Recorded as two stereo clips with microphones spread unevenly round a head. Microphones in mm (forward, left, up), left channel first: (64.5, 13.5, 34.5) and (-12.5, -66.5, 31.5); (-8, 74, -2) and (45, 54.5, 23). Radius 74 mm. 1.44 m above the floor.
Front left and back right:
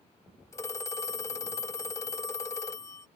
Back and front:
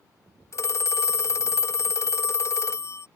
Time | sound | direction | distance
0.5 | a phone ringing | 115° left | ?